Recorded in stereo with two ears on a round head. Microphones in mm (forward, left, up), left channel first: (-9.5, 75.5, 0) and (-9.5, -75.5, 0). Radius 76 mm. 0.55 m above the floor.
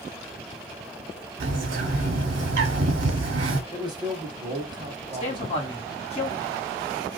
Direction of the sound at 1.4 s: 85° right.